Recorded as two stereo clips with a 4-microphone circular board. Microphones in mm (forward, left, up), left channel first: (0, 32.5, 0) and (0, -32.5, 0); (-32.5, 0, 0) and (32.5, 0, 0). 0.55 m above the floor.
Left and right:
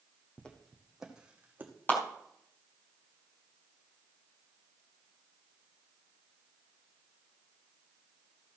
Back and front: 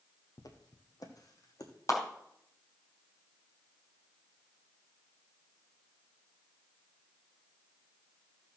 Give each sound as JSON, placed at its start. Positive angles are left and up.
{"t": 0.4, "sound": "footsteps", "azimuth_deg": 165, "distance_m": 1.9}
{"t": 1.9, "sound": "a clap", "azimuth_deg": 145, "distance_m": 3.5}